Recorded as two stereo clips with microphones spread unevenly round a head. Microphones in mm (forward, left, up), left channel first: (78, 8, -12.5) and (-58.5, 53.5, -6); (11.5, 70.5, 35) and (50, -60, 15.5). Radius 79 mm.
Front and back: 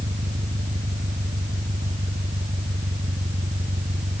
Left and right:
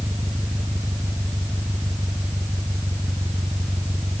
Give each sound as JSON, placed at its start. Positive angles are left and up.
{"t": 0.0, "sound": "an engine running", "azimuth_deg": -155}